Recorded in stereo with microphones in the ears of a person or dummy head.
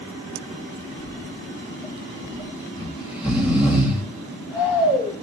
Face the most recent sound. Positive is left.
turn(degrees=-10)  # may be behind; listen again after turning